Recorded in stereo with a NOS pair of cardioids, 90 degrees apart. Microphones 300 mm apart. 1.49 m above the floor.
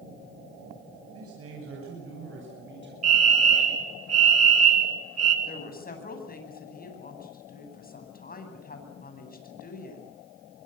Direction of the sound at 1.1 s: 50° right.